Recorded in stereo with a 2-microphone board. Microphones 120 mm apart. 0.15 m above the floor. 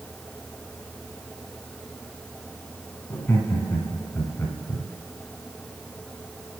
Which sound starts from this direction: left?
Laughter, at 3.1 s.